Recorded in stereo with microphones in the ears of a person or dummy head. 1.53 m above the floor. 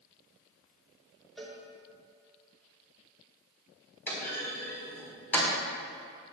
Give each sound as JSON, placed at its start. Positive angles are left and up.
{"t": 1.4, "sound": "a cowbell", "side_deg": 5, "distance_m": 3.5}
{"t": 4.1, "sound": "a clunk", "side_deg": 10, "distance_m": 5.0}